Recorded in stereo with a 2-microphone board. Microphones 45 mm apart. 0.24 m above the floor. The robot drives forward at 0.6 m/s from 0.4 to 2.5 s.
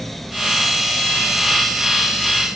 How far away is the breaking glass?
No breaking glass in this recording.